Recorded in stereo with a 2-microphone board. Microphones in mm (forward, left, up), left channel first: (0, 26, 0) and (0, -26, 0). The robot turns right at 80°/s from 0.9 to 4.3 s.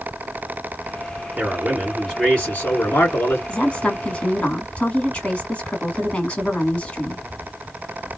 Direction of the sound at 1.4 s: 40° right.